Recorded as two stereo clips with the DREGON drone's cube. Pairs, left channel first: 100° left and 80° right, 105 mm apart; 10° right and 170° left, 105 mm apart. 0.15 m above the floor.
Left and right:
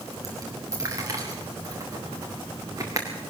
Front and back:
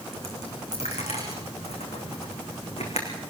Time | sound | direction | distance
0.1 | a dropped coin | 20° right | 4 m